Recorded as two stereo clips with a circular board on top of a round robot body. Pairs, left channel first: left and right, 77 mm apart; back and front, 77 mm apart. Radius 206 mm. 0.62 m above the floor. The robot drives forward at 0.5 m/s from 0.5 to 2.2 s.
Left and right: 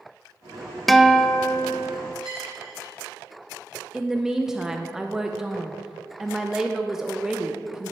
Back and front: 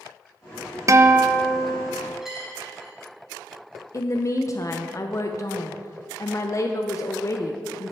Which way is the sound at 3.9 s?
170° right.